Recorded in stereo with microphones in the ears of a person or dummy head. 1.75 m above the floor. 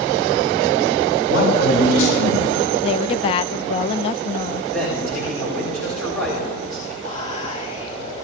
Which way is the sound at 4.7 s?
10° left (ahead or behind).